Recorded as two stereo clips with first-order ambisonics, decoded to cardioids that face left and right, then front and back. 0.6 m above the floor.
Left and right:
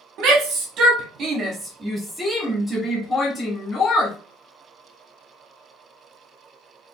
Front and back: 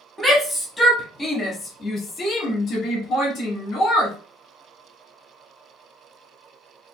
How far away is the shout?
About 1.5 m.